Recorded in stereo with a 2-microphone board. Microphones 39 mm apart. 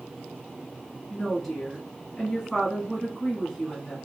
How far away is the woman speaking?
About 1.4 m.